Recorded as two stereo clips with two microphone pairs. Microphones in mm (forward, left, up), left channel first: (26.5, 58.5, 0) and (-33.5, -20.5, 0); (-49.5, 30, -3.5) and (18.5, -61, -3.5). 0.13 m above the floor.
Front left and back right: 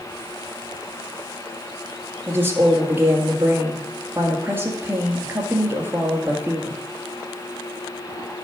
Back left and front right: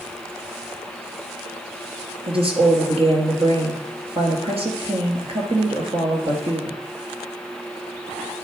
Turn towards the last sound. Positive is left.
turn(degrees=-60)